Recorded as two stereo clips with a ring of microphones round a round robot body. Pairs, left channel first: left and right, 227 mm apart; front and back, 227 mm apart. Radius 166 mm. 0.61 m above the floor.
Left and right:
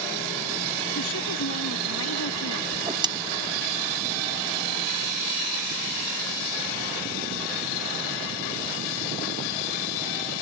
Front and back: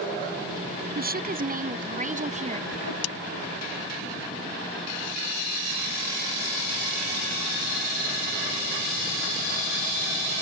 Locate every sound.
0.9 s a woman speaking: 135° left; by 2.6 s 120° left
2.7 s a whoosh: 20° right